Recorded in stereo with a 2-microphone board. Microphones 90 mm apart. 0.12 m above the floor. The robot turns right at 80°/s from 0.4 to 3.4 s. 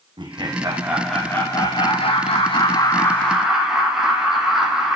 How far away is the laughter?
About 5.5 m.